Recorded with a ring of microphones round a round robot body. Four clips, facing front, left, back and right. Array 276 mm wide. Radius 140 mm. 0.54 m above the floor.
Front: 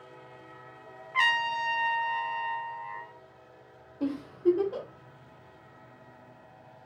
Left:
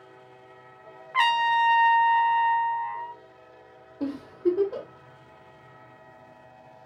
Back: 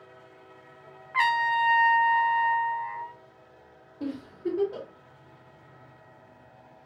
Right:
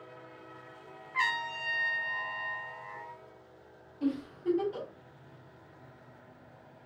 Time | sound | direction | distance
1.1 | a trumpet | 110° left | 0.6 m
4.0 | a giggle | 90° left | 2 m